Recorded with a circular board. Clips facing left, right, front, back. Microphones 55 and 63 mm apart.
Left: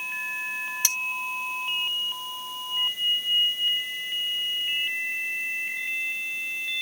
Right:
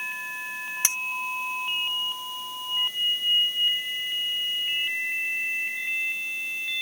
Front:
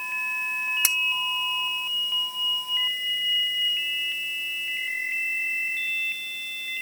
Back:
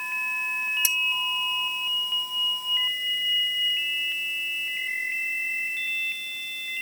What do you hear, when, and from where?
0.8 s cutlery clinking: 25° right